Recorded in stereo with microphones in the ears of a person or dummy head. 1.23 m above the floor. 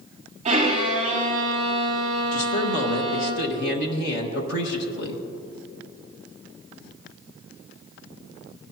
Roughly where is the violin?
Right.